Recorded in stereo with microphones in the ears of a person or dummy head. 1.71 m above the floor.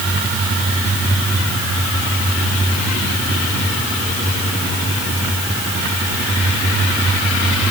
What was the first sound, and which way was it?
Only background noise.